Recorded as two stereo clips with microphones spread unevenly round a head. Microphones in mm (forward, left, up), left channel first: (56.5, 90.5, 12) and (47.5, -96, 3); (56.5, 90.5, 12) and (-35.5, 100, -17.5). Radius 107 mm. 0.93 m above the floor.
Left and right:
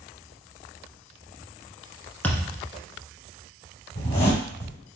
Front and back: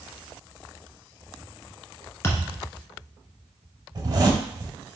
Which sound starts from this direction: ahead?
A thud, at 2.2 s.